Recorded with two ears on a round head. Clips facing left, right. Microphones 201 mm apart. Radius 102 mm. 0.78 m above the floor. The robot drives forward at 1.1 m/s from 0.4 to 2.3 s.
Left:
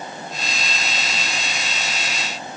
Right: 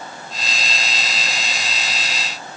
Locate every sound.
Only background noise.